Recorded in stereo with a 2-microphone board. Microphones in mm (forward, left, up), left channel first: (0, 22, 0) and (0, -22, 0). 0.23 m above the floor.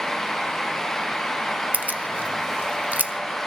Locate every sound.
1.7 s keys jangling: 40° right (ahead or behind), 0.8 m